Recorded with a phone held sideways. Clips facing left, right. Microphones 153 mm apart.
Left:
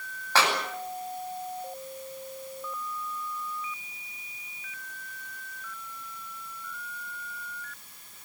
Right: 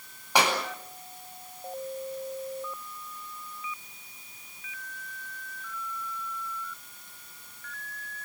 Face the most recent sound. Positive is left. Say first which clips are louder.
# right 1 dB
turn(degrees=-15)  # may be behind; listen again after turning